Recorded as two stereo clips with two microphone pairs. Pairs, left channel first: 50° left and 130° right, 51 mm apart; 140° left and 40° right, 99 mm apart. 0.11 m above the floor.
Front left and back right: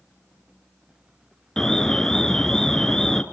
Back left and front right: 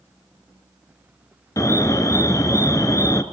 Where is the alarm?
120° left, 1.1 m.